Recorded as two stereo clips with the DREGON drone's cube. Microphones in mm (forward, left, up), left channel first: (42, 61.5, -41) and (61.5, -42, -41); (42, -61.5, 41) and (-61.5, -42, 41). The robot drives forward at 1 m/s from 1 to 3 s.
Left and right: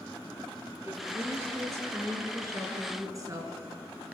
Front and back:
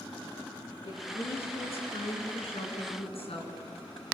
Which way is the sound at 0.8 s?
15° right.